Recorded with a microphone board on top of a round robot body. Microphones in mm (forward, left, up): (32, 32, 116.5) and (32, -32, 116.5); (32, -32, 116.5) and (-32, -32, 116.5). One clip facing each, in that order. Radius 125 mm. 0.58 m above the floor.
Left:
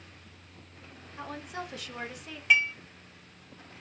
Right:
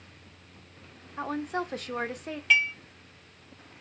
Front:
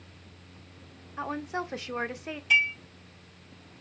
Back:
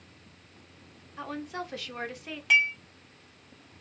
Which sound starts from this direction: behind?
Dishes clattering, at 2.5 s.